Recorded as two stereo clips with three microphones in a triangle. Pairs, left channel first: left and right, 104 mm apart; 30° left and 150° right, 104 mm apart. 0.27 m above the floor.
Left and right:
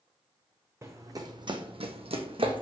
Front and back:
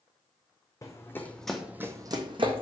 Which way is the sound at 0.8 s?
25° right.